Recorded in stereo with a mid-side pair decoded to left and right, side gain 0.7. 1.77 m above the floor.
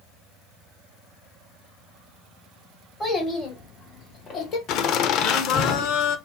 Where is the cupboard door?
No cupboard door in this recording.